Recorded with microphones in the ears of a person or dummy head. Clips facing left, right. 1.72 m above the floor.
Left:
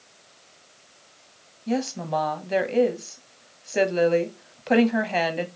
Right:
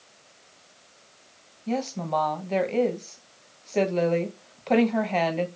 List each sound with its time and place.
1.7 s a woman speaking: 10° left (ahead or behind), 0.8 m